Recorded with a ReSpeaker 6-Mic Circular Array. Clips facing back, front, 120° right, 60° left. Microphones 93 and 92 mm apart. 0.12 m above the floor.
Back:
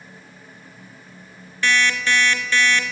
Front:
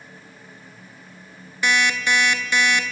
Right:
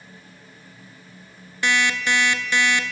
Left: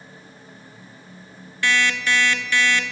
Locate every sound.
1.6 s an alarm clock: 65° right, 0.5 m